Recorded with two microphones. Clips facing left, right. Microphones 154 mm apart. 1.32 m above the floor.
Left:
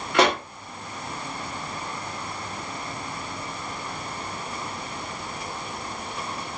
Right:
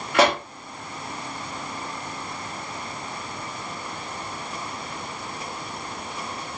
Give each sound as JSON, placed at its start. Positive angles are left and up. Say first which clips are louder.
{"t": 0.1, "sound": "a pop", "louder": "right 1 dB", "side_deg": -5, "distance_m": 1.7}